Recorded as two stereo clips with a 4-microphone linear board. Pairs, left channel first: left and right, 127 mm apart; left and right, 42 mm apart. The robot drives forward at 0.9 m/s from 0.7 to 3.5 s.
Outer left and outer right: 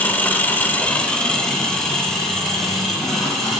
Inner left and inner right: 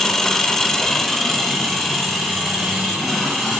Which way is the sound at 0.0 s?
15° left (ahead or behind).